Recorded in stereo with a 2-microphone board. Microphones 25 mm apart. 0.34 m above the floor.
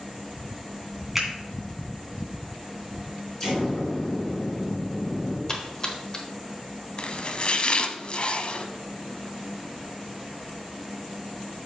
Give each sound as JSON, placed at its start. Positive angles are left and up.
{"t": 1.1, "sound": "a finger snap", "side_deg": -15, "distance_m": 2.0}
{"t": 3.4, "sound": "an explosion", "side_deg": 25, "distance_m": 4.0}
{"t": 5.5, "sound": "a splash", "side_deg": 30, "distance_m": 1.2}
{"t": 7.0, "sound": "chopping", "side_deg": 45, "distance_m": 0.5}